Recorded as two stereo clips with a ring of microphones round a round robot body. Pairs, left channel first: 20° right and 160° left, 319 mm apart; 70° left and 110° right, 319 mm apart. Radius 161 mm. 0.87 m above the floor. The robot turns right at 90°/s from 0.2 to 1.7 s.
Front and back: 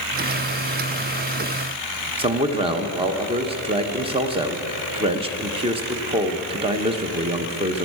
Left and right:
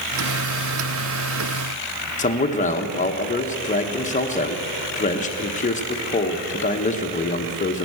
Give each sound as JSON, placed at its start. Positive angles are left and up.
{"t": 2.2, "sound": "a man speaking", "azimuth_deg": 105, "distance_m": 1.0}